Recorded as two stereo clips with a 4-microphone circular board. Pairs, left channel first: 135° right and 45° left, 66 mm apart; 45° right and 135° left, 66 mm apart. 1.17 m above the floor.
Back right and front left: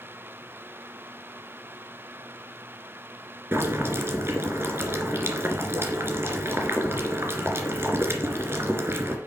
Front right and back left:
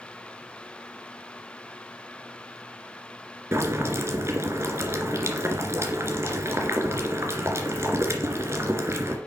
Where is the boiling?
90° left, 2.5 m.